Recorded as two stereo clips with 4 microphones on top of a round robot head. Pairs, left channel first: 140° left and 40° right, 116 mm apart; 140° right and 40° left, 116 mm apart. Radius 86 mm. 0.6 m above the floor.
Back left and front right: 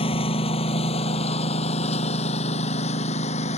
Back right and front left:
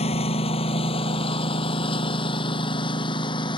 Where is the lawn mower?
175° right; by 3.6 s 170° left.